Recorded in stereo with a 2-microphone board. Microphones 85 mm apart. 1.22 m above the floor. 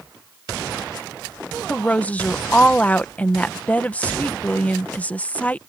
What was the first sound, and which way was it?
A woman speaking, 20° left (ahead or behind).